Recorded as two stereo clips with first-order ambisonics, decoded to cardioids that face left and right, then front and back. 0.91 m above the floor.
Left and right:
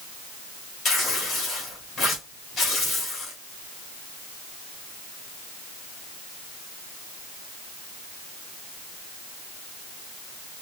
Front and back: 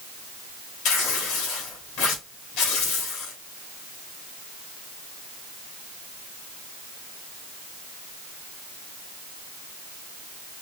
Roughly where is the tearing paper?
Ahead.